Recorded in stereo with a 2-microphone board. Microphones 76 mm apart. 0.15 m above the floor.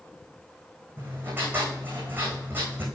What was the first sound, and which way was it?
Writing, 30° right (ahead or behind).